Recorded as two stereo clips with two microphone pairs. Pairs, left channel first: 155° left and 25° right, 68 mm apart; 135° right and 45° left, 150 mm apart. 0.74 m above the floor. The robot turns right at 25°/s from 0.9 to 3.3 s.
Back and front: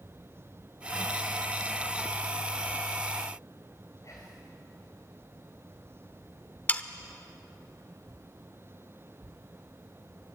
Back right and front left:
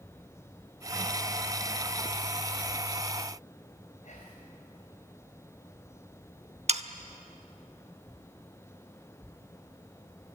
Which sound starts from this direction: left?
Sawing, at 6.7 s.